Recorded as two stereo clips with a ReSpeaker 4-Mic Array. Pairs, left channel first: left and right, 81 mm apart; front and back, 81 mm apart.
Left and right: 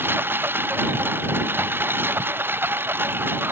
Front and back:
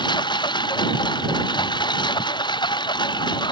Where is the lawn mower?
25° right.